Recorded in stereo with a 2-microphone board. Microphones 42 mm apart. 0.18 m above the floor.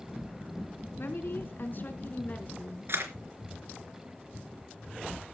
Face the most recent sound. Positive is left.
turn(degrees=-60)  # may be behind; listen again after turning